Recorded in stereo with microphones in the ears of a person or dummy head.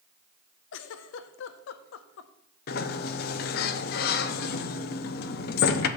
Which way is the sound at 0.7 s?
70° left (ahead or behind).